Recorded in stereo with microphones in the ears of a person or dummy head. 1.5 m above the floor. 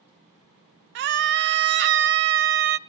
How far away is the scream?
About 0.8 m.